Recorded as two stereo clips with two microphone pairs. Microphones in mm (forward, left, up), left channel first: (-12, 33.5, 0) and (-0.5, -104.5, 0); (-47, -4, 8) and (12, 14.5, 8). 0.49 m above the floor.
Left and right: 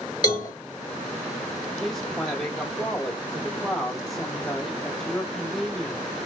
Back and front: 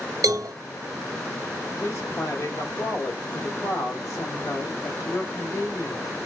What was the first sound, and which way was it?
A cowbell, 30° left.